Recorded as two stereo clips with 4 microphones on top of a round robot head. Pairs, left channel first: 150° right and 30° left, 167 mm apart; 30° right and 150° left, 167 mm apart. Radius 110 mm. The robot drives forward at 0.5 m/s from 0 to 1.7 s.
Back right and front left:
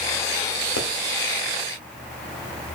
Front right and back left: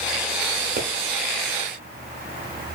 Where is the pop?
165° right, 0.9 m.